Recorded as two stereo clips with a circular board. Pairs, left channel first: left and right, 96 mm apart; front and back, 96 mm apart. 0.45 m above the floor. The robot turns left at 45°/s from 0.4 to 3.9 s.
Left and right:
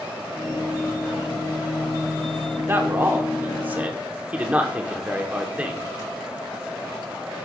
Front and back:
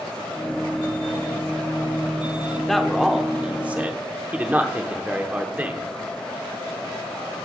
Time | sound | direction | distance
2.6 | a man speaking | 80° right | 0.8 m